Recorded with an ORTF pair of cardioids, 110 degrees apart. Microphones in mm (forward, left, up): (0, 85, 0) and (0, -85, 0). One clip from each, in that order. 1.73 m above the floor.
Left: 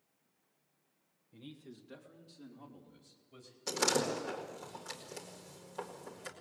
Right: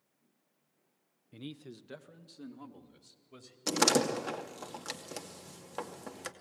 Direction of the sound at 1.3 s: 55° right.